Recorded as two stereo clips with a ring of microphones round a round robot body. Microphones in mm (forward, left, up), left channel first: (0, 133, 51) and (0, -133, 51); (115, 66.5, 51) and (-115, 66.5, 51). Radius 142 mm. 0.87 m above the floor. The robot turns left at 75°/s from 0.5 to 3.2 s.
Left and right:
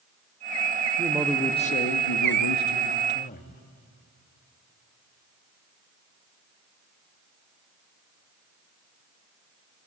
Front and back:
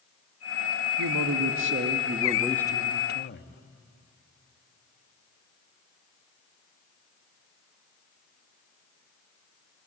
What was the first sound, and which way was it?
A man speaking, 155° right.